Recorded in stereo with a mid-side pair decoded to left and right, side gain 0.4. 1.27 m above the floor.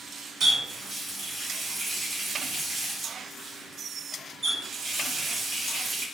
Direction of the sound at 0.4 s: 55° right.